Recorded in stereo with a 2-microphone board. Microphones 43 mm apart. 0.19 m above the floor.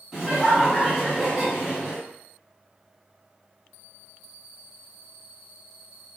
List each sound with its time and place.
0.1 s laughter: 15° right (ahead or behind), 1.1 m